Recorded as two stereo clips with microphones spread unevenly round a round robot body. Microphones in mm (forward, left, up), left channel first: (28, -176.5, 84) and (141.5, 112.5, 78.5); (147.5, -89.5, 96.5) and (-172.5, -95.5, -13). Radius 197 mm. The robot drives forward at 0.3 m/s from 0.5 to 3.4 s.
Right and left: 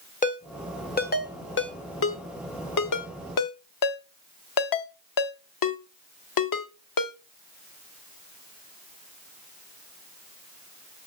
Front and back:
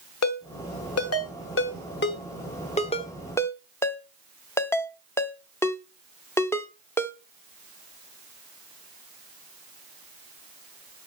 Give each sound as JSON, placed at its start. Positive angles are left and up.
{"t": 0.2, "sound": "a ringtone", "azimuth_deg": -45, "distance_m": 1.4}